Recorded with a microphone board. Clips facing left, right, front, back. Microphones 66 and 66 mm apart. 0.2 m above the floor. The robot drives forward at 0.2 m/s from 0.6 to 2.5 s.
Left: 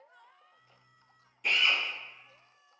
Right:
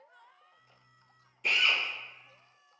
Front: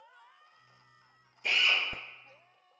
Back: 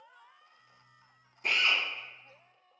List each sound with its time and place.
1.4 s a drill: straight behind, 1.0 m